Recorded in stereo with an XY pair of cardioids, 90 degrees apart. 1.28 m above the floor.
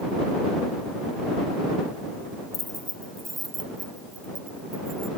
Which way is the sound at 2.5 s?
30° left.